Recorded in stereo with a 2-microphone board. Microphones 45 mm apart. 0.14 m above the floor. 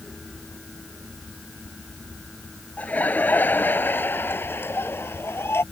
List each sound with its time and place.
2.8 s laughter: 35° left (ahead or behind); by 5.6 s 65° left (ahead or behind)